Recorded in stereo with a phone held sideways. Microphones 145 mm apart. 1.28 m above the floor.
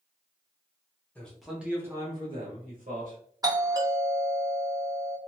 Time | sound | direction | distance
1.1 | a man speaking | 10° left (ahead or behind) | 1.0 m
3.4 | a doorbell | 25° right (ahead or behind) | 0.8 m